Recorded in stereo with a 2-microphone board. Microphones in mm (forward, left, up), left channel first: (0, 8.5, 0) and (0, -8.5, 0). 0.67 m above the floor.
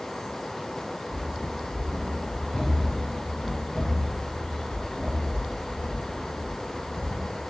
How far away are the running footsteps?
About 7 m.